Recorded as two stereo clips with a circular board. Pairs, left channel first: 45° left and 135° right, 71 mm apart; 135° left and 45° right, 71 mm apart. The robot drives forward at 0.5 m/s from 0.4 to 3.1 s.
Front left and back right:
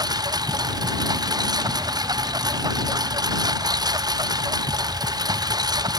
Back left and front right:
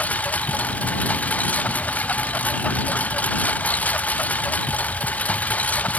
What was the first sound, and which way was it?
A lawn mower, 155° right.